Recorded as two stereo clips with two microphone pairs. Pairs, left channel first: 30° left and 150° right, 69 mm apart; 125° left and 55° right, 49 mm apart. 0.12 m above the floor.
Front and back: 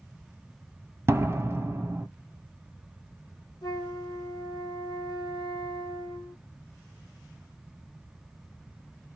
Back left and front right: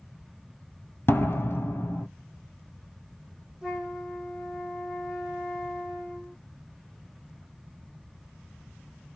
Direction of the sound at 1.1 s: 160° left.